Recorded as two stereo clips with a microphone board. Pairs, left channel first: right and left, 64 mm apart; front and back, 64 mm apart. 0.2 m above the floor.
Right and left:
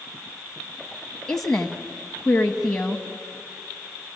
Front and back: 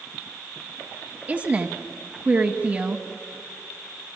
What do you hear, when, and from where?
1.3 s a woman speaking: 160° right, 1.1 m